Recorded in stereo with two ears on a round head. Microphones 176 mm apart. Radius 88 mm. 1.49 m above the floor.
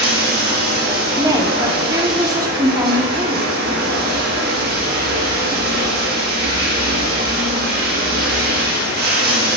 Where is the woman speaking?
15° right (ahead or behind), 0.8 m.